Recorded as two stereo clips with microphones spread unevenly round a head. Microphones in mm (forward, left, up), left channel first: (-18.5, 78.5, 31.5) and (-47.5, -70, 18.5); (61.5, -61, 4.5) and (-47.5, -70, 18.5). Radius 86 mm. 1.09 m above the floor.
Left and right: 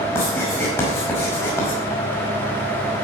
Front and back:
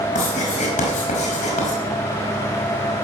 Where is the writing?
5° left, 5.5 m.